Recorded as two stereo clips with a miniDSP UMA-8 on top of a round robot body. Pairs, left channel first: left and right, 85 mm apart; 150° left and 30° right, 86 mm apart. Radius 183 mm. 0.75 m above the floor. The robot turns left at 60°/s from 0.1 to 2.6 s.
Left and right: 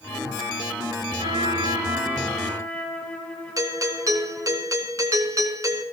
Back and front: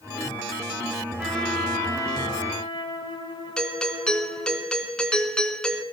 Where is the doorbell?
130° right, 2.5 m.